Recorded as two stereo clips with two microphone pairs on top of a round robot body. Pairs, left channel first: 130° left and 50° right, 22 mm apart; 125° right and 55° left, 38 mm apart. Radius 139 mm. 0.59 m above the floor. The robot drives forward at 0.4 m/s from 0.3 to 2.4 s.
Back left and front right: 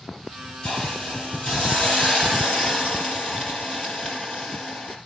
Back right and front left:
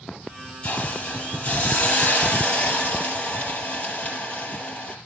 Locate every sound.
0.6 s a hiss: 170° left, 4 m; by 5.0 s 175° left, 5 m